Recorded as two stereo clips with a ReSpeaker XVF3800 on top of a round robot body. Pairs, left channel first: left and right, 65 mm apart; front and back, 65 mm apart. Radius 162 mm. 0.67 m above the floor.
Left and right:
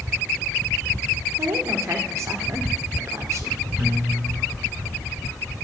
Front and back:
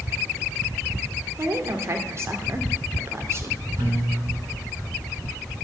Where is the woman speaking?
135° right, 2 m.